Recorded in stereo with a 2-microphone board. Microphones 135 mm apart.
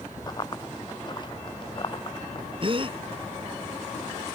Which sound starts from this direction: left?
Running footsteps, at 0.3 s.